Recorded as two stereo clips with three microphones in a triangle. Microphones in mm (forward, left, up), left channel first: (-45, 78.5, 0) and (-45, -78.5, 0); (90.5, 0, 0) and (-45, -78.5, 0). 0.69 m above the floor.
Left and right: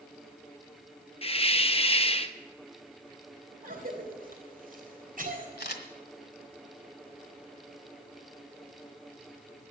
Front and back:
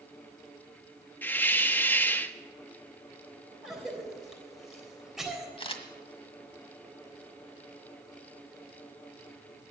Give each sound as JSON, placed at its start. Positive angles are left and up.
{"t": 1.2, "sound": "a hiss", "azimuth_deg": 100, "distance_m": 0.7}
{"t": 3.6, "sound": "a cough", "azimuth_deg": -60, "distance_m": 3.5}
{"t": 5.6, "sound": "a camera shutter", "azimuth_deg": 85, "distance_m": 1.6}